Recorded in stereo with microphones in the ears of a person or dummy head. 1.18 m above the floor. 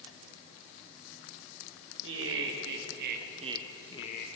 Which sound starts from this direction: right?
Laughter, at 2.0 s.